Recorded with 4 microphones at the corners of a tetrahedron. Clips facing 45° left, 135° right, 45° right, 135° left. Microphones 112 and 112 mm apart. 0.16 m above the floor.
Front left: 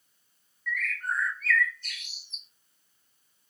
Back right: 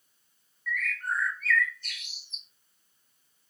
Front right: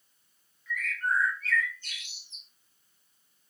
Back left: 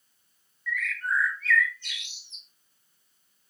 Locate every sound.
0.7 s a bird: 45° right, 1.9 m